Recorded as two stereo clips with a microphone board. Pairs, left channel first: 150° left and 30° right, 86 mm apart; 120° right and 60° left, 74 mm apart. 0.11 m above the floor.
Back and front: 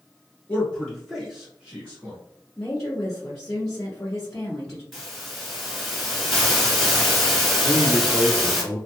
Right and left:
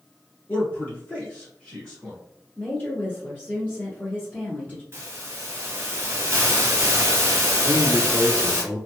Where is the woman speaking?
130° right, 1.4 m.